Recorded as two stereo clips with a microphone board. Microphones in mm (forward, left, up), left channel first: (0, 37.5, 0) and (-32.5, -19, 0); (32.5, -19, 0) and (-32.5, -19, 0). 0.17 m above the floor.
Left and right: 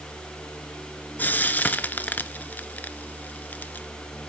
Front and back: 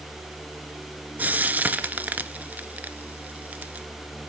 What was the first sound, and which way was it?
Frying, 120° left.